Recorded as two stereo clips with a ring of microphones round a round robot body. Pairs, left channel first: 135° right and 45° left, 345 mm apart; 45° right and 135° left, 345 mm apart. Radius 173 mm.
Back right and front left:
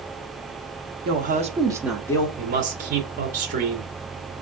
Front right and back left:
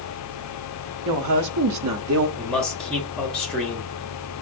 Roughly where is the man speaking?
Ahead left.